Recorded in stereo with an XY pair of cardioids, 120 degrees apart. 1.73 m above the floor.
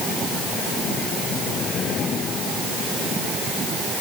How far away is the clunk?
No clunk in this recording.